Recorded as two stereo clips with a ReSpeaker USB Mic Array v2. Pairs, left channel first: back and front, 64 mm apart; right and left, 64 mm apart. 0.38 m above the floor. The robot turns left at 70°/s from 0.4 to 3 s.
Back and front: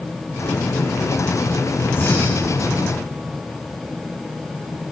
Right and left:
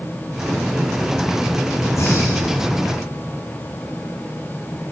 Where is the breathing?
125° right, 6 m; by 2.6 s 175° right, 6 m.